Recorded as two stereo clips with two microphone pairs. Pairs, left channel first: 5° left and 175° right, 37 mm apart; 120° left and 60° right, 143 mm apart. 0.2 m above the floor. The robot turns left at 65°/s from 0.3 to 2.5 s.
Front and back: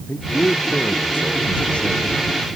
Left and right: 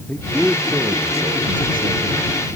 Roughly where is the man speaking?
Ahead left.